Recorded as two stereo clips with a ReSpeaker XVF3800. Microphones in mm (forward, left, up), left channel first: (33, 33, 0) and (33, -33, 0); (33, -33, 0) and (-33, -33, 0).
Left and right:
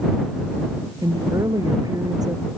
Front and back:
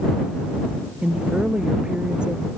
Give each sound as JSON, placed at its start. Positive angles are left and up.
{"t": 1.0, "sound": "a woman speaking", "azimuth_deg": -105}